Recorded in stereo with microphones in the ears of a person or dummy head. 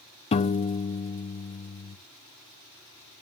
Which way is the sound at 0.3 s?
25° left (ahead or behind).